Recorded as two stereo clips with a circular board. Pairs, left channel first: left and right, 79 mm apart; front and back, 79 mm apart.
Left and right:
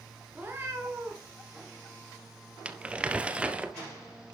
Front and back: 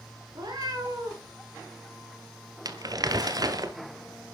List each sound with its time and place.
0.3 s a cat meowing: 155° right, 5 m; by 1.3 s 140° right, 4 m
2.6 s crumpling: 160° right, 1.1 m